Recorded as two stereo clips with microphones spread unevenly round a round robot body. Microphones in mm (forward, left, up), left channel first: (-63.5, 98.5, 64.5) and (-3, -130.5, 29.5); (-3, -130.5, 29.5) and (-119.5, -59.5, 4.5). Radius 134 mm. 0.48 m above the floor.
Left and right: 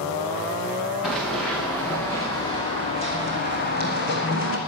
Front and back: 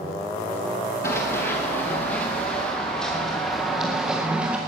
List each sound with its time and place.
1.0 s running footsteps: 15° left, 3 m; by 4.6 s 65° left, 2 m